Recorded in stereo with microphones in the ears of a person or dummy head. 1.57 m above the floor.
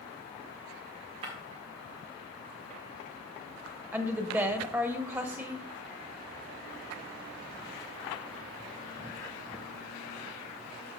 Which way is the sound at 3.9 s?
15° right (ahead or behind).